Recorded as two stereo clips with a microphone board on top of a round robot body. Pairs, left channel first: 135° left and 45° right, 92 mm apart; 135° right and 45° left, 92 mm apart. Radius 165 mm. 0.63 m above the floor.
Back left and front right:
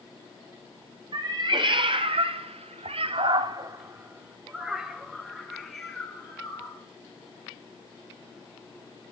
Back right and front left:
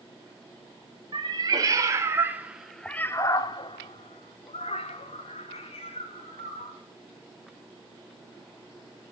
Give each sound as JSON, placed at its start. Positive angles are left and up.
{"t": 1.1, "sound": "a cat meowing", "azimuth_deg": 0, "distance_m": 1.6}